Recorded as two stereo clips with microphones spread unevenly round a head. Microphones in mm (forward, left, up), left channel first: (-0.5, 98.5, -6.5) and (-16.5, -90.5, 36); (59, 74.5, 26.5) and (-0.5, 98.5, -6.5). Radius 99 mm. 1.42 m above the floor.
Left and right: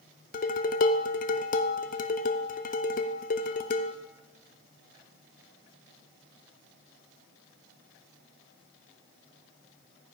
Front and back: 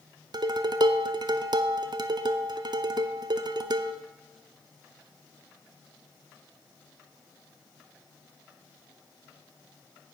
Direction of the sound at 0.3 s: 135° left.